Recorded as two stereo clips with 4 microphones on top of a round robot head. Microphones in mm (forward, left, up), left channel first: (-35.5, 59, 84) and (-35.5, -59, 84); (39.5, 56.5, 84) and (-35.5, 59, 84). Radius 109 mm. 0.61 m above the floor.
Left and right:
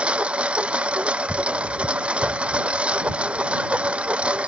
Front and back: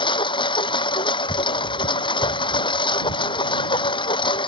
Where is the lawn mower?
10° right.